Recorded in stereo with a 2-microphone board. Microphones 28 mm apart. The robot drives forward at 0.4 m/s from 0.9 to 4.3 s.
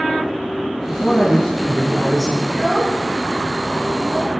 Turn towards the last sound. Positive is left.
turn(degrees=-5)  # may be behind; listen again after turning